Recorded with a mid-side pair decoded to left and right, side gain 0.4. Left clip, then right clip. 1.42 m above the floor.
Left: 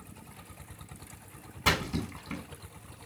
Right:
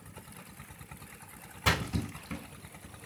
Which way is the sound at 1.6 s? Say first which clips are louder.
Left 2 dB; 5° left.